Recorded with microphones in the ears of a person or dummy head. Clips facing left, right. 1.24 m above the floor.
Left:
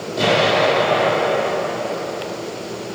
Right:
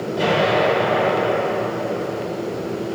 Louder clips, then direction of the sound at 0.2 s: Left 2 dB; 10° right (ahead or behind).